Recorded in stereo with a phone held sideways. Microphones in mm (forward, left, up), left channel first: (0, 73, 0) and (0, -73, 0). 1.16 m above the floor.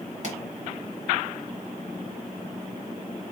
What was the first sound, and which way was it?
A pop, 55° right (ahead or behind).